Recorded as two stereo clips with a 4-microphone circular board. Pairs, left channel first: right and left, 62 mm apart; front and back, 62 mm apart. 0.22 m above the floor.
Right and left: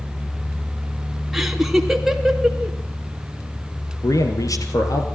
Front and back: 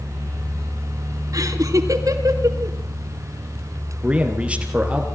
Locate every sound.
1.3 s laughter: 175° left, 3 m
4.0 s a man speaking: 110° right, 4 m